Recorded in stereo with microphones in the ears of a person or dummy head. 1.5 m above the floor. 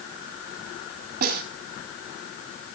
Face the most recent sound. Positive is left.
turn(degrees=-55)  # may be behind; listen again after turning